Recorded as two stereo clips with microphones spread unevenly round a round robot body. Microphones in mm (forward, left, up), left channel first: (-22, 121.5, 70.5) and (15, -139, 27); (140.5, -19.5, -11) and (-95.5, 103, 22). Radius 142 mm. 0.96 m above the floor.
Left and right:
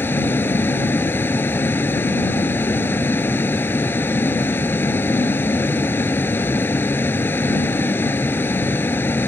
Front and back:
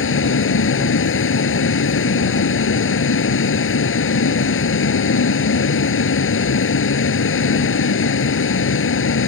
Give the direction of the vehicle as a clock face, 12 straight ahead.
11 o'clock.